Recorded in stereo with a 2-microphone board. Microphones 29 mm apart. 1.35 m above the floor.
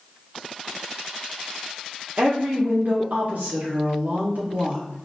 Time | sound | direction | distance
2.2 | a woman speaking | 70° right (ahead or behind) | 0.7 m